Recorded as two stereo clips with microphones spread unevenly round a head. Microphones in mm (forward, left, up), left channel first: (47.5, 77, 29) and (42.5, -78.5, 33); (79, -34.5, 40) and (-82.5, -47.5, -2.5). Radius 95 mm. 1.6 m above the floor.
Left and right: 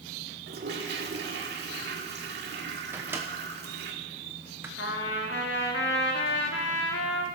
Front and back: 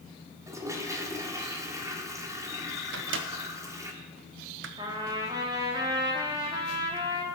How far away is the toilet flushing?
About 1.9 m.